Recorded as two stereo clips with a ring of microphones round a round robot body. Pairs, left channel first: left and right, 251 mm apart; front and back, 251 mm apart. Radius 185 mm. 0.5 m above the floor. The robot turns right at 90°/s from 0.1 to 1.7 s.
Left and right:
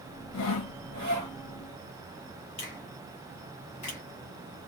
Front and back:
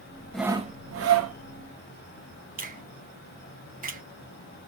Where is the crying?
I don't hear crying.